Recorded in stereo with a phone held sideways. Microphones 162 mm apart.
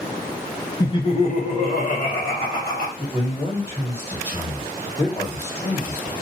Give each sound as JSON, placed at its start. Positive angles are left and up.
{"t": 0.8, "sound": "laughter", "side_deg": 25, "distance_m": 0.6}
{"t": 3.0, "sound": "a man speaking", "side_deg": 35, "distance_m": 1.3}